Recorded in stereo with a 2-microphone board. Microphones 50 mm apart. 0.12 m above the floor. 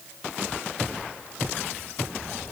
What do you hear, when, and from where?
Only background noise.